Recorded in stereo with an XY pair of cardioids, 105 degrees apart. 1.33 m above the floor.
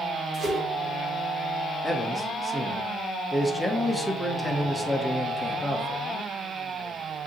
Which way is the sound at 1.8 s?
Straight ahead.